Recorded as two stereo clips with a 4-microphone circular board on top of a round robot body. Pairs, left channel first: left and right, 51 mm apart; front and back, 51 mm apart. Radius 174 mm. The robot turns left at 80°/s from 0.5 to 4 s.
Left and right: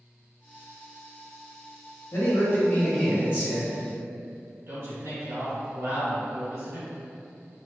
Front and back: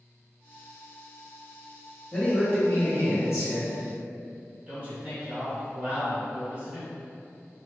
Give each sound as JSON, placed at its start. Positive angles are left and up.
{"t": 2.1, "sound": "a man speaking", "azimuth_deg": 75, "distance_m": 1.1}
{"t": 4.7, "sound": "a man speaking", "azimuth_deg": -115, "distance_m": 1.7}